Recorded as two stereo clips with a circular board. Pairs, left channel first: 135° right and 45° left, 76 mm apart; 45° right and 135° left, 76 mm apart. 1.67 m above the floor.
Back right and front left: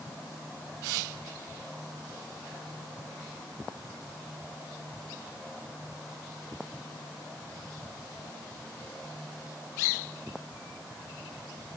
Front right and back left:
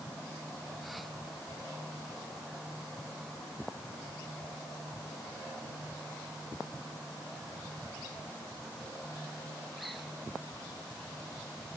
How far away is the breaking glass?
No breaking glass in this recording.